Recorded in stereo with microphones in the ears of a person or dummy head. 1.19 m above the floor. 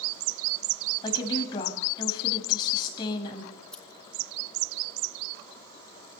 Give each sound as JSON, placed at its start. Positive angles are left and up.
{"t": 1.0, "sound": "a woman speaking", "side_deg": 25, "distance_m": 7.0}
{"t": 3.5, "sound": "scissors", "side_deg": 5, "distance_m": 2.5}